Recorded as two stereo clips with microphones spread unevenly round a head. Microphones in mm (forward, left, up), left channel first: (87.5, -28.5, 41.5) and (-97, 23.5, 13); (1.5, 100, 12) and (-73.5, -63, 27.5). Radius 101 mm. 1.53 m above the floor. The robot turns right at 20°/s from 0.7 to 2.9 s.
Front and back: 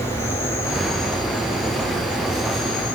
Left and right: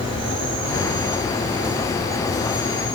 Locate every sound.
0.0 s an insect: 95° right, 7 m; by 3.0 s 50° right, 7 m